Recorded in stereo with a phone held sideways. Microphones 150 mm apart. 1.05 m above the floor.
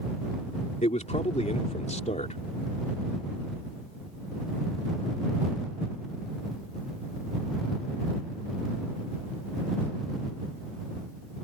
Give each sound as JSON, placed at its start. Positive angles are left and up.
{"t": 0.8, "sound": "a man speaking", "side_deg": 50}